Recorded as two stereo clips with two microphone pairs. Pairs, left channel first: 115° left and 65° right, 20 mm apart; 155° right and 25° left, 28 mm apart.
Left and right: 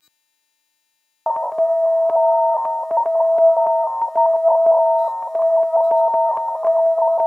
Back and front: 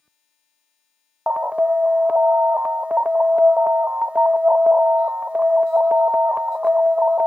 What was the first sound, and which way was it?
An alarm, 55° left.